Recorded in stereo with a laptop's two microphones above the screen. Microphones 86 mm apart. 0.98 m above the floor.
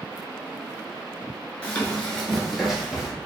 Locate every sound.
1.6 s running footsteps: 15° left (ahead or behind), 0.9 m; by 3.1 s 5° right (ahead or behind), 1.7 m